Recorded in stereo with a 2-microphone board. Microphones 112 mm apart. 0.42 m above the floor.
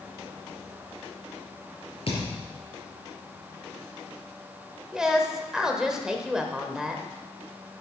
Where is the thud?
55° left (ahead or behind), 4.5 m.